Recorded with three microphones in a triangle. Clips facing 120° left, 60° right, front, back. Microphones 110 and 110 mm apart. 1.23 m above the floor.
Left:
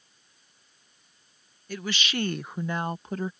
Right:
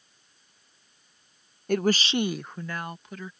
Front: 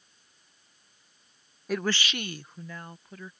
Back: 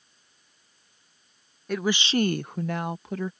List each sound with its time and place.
1.7 s a woman speaking: 85° right; by 3.3 s 170° left